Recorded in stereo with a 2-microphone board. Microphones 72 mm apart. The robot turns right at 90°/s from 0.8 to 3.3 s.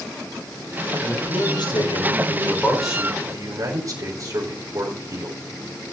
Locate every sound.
1.0 s a man speaking: 20° left, 4.5 m; by 5.4 s 135° right, 4.5 m